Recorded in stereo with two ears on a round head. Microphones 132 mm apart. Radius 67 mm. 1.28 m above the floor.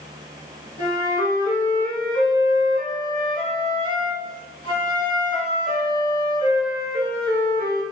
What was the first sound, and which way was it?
A flute, 30° left (ahead or behind).